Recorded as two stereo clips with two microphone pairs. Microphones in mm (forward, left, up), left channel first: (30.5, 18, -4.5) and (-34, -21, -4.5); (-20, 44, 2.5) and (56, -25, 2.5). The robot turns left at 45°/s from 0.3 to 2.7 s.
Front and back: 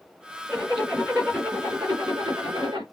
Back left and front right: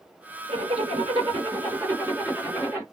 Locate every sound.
0.5 s a zipper: 45° right, 3 m; by 2.8 s 145° right, 3 m